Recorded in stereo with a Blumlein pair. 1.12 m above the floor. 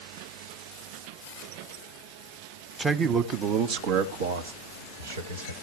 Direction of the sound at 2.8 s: 10° right.